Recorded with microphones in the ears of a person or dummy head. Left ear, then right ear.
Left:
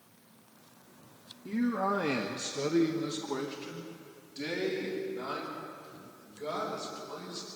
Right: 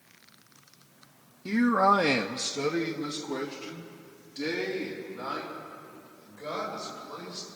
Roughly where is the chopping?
No chopping in this recording.